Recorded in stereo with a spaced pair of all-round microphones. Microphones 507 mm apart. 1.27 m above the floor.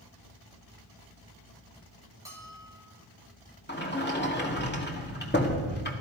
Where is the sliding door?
20° left (ahead or behind), 1.9 m.